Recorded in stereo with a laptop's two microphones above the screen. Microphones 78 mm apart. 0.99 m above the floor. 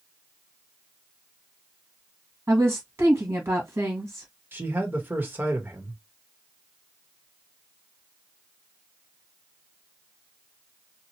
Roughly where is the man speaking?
Right.